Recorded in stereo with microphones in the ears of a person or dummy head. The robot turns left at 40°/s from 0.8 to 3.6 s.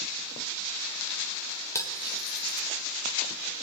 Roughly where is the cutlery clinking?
Centre.